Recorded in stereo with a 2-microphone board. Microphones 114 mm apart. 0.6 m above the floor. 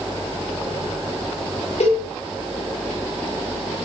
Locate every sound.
1.8 s a cowbell: 65° left (ahead or behind), 9.5 m